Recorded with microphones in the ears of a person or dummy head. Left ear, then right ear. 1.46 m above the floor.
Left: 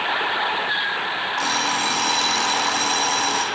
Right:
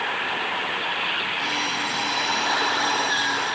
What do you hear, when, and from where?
1.4 s an alarm clock: 40° left (ahead or behind), 1.3 m